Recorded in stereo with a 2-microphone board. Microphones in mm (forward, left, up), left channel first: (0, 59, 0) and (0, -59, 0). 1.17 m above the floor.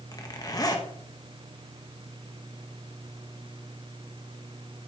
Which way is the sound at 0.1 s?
30° left (ahead or behind).